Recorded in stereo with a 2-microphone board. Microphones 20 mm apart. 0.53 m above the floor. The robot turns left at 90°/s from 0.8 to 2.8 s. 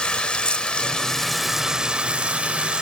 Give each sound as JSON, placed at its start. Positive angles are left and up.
{"t": 0.0, "sound": "running water", "azimuth_deg": 55, "distance_m": 0.8}